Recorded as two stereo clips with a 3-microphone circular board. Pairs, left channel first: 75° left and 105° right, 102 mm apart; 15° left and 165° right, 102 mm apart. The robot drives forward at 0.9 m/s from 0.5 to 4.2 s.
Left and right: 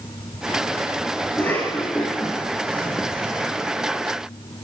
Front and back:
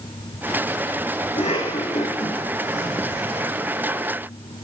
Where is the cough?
Straight ahead, 10 m.